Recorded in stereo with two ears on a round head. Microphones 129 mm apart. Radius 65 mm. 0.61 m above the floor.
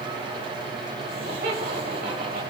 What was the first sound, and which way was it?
Laughter, 70° right (ahead or behind).